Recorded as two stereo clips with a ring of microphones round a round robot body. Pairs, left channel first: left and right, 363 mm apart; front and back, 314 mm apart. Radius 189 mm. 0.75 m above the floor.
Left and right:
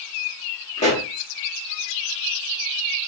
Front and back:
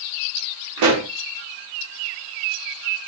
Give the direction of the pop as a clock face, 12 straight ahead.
7 o'clock.